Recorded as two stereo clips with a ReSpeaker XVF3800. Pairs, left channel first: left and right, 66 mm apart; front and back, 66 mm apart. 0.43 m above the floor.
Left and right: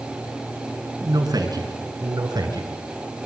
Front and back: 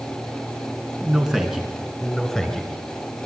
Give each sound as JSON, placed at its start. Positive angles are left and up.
{"t": 1.0, "sound": "a man speaking", "azimuth_deg": -100, "distance_m": 4.0}